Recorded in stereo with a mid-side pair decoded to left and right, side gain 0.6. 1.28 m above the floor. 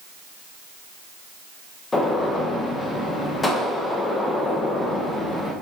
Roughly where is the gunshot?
Ahead.